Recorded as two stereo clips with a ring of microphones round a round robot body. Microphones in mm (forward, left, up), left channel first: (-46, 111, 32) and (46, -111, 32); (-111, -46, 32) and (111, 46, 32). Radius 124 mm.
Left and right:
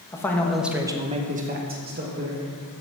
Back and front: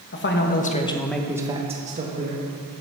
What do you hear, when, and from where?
0.1 s a man speaking: 175° right, 1.4 m; by 2.5 s 25° right, 1.9 m